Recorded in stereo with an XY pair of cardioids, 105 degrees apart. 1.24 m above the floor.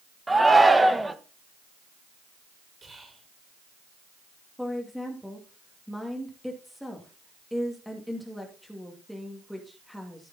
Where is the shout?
15° right, 1.4 m.